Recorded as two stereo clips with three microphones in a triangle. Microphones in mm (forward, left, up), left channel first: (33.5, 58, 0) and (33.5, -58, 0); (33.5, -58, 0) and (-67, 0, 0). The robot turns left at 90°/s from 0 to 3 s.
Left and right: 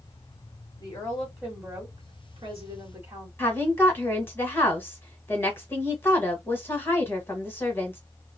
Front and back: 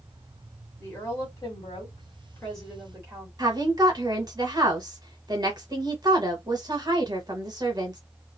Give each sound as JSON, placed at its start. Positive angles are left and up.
{"t": 0.8, "sound": "a woman speaking", "azimuth_deg": 45, "distance_m": 1.7}
{"t": 3.4, "sound": "a woman speaking", "azimuth_deg": 145, "distance_m": 1.3}